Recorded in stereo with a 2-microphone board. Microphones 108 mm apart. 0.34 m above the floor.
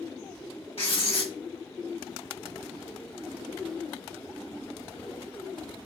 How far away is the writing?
About 1.3 m.